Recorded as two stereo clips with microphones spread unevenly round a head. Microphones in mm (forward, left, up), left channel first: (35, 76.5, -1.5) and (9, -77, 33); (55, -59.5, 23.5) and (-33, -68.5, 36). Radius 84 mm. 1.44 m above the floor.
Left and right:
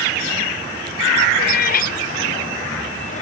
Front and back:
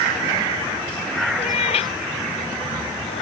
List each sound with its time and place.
1.4 s a cat meowing: 50° left; by 3.2 s 35° left